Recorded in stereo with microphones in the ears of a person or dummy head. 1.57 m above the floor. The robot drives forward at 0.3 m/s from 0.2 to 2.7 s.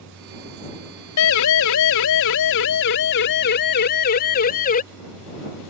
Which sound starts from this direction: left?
A siren, at 1.2 s.